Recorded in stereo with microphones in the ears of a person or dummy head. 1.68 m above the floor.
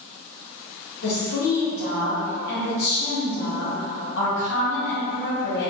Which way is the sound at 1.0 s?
60° left (ahead or behind).